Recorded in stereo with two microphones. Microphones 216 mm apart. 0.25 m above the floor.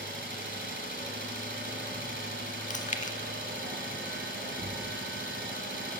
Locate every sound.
0.0 s an engine running: 60° right (ahead or behind), 1.3 m
2.7 s chewing: 35° left (ahead or behind), 0.6 m